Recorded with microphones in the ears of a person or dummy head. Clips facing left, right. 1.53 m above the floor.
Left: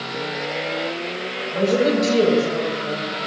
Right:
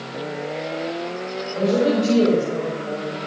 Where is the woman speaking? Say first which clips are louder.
Left 1 dB; 25° left (ahead or behind), 6.5 m.